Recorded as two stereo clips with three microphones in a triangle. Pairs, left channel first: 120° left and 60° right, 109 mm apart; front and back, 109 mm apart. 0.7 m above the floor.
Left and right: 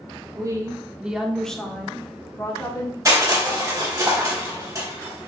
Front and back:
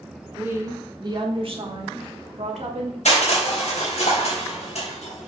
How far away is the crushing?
About 4 m.